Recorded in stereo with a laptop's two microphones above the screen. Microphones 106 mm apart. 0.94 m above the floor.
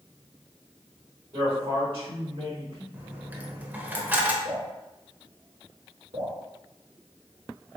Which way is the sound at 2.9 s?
15° right (ahead or behind).